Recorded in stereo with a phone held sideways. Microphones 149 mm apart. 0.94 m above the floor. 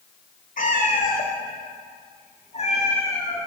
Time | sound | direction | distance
0.6 | a cat meowing | 65° left (ahead or behind) | 1.4 m